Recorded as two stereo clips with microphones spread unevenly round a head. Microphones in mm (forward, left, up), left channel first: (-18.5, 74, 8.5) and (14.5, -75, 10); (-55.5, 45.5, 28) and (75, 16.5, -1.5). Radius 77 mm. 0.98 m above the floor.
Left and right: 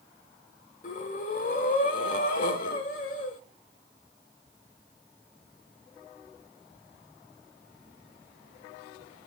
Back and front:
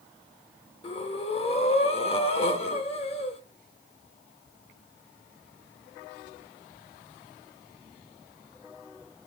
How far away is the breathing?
About 1.1 m.